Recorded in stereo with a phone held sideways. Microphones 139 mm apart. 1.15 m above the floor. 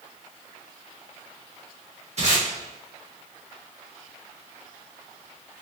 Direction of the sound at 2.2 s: 50° right (ahead or behind).